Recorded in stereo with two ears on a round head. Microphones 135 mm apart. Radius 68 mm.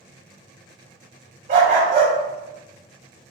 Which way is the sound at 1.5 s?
45° right (ahead or behind).